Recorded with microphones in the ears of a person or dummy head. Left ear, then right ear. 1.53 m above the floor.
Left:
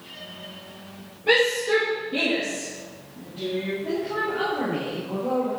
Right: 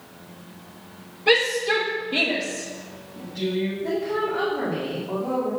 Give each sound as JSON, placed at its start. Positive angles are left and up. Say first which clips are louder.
{"t": 1.3, "sound": "a shout", "louder": "even", "side_deg": -50, "distance_m": 2.0}
{"t": 3.8, "sound": "a woman speaking", "louder": "right 3 dB", "side_deg": -60, "distance_m": 4.0}